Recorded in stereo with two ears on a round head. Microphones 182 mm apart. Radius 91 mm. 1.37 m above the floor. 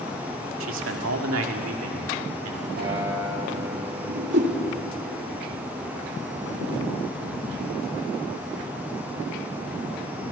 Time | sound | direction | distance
0.6 | a man speaking | 70° right (ahead or behind) | 2.5 m
2.8 | a guitar | 55° right (ahead or behind) | 7.5 m
4.1 | a whoosh | 55° right (ahead or behind) | 3 m